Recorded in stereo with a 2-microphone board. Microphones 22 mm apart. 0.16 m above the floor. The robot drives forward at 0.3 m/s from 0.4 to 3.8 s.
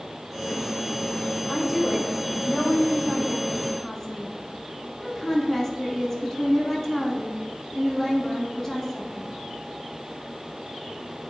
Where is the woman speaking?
20° left (ahead or behind), 1.2 m; by 9.3 s 15° left (ahead or behind), 1.4 m.